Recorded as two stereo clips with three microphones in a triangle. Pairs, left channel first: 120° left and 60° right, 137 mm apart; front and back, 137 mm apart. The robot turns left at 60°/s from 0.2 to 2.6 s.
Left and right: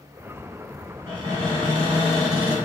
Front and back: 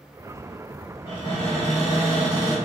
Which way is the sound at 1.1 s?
30° right.